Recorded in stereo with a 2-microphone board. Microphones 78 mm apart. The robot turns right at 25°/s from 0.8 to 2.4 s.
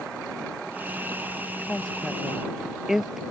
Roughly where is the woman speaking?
Centre.